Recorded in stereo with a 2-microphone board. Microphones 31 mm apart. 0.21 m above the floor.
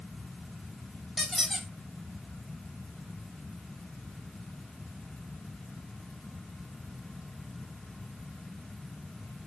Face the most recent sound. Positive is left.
turn(degrees=-5)  # may be behind; listen again after turning